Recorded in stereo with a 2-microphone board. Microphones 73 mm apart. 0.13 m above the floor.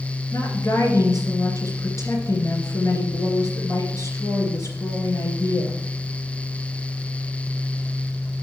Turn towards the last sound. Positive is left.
turn(degrees=45)  # may be behind; listen again after turning